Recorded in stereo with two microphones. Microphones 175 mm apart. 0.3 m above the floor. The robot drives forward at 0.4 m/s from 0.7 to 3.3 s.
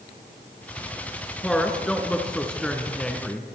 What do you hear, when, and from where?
1.4 s a woman speaking: 5° left (ahead or behind), 3.5 m